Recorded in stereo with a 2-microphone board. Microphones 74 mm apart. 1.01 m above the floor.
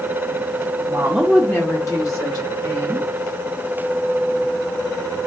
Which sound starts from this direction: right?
A woman speaking, at 0.8 s.